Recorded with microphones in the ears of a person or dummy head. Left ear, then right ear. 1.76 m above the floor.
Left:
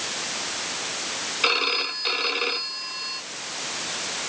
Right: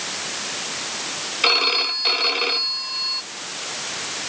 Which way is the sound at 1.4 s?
15° right (ahead or behind).